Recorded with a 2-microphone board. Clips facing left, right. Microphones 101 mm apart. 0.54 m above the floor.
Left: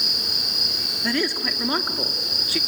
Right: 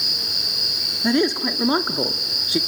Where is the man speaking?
20° right (ahead or behind), 0.8 m.